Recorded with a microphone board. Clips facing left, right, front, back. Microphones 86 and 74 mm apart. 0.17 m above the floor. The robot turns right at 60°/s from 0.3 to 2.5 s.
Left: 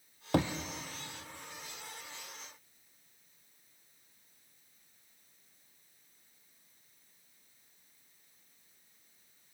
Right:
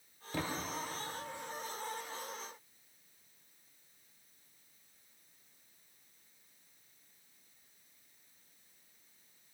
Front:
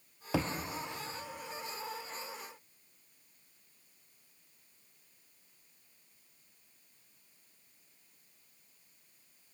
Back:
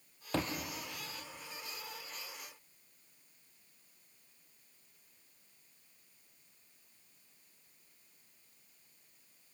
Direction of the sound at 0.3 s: 80° left.